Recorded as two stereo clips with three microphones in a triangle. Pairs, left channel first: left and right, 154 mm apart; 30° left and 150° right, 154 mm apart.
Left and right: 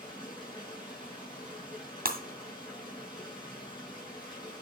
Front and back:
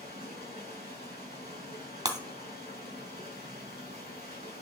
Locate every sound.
0.0 s running water: 30° left, 6 m
2.0 s breaking glass: 85° right, 2.0 m